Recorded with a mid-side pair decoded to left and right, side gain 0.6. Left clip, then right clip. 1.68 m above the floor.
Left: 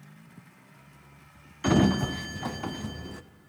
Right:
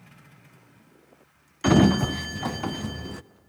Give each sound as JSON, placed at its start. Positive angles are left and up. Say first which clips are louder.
{"t": 1.6, "sound": "a sliding door", "louder": "right 4 dB", "azimuth_deg": -20, "distance_m": 0.5}